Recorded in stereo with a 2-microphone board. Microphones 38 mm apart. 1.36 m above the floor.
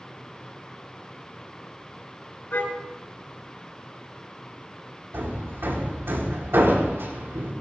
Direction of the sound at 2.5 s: 60° left (ahead or behind).